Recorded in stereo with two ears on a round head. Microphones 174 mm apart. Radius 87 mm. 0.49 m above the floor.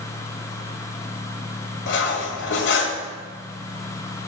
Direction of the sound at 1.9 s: 70° left (ahead or behind).